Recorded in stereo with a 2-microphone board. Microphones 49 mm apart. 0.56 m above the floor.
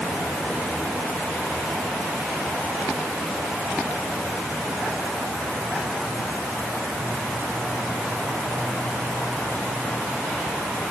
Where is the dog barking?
I don't hear a dog barking.